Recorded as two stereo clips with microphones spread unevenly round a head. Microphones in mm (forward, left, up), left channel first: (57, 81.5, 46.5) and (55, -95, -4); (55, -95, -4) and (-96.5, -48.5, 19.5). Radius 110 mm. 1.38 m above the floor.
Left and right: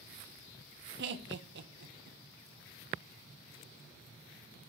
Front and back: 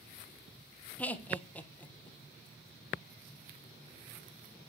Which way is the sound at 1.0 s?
95° right.